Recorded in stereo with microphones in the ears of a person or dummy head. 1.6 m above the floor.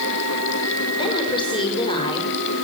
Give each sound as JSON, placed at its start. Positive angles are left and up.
{"t": 0.9, "sound": "a woman speaking", "side_deg": 30, "distance_m": 6.5}